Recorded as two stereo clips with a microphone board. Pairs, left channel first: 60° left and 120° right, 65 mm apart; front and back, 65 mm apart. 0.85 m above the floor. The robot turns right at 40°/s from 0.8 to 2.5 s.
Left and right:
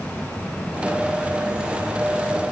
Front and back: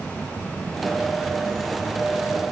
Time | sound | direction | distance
0.0 | an insect | 45° left | 1.4 m